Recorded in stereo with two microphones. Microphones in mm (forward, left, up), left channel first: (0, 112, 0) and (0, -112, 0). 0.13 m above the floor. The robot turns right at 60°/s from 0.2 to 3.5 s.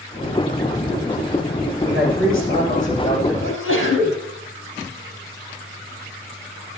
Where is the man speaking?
85° left, 7 m; by 3.3 s 175° left, 7 m.